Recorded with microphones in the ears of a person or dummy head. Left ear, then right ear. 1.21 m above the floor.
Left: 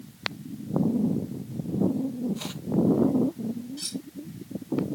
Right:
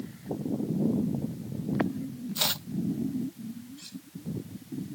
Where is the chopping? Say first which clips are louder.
Right 8 dB; 40° right (ahead or behind).